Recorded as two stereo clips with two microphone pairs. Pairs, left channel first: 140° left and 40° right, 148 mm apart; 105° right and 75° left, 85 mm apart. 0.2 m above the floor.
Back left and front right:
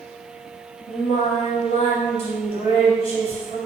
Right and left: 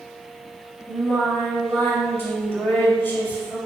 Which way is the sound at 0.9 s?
170° right.